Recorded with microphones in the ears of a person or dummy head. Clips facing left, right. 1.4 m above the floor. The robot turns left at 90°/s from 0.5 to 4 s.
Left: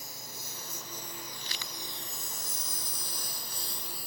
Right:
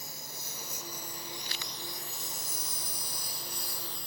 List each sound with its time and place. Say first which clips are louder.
0.0 s a lawn mower: even; 75° right (ahead or behind); by 4.1 s 5° left (ahead or behind)